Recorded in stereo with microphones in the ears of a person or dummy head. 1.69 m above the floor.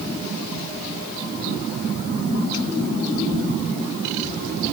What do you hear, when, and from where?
Only background noise.